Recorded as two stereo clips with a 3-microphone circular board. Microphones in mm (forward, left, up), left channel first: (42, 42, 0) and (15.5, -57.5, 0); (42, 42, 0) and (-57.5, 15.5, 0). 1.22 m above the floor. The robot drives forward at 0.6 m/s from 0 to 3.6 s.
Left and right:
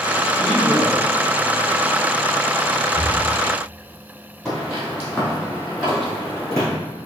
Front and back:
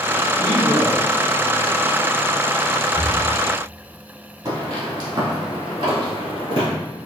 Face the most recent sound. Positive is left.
turn(degrees=170)